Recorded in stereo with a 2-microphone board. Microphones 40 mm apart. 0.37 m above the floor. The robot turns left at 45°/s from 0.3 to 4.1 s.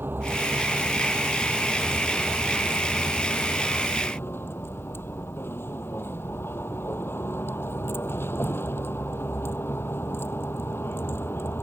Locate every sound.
0.0 s a vehicle: 115° right; by 11.6 s 70° left